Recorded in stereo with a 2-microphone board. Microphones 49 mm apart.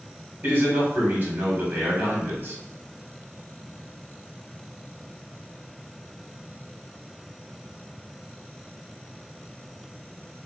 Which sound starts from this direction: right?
A man speaking, at 0.4 s.